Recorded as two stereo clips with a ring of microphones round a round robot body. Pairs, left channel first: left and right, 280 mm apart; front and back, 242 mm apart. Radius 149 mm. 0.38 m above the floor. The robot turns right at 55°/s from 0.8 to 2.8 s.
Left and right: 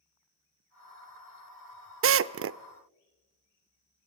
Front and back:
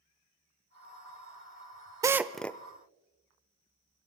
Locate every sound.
2.0 s a drill: 110° right, 0.7 m; by 2.6 s 75° right, 0.7 m